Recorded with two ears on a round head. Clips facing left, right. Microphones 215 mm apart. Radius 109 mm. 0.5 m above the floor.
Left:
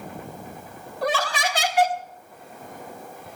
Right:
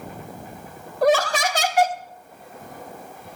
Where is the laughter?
40° right (ahead or behind), 1.0 m.